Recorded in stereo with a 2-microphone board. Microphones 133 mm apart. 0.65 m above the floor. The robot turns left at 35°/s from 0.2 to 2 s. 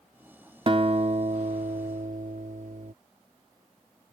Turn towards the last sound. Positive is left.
turn(degrees=-90)